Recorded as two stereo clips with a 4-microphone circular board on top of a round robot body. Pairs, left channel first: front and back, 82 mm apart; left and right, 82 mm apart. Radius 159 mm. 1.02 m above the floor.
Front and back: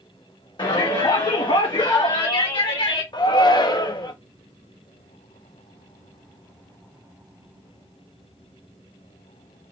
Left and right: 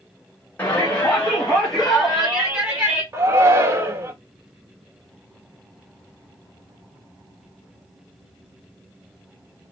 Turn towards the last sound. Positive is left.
turn(degrees=-30)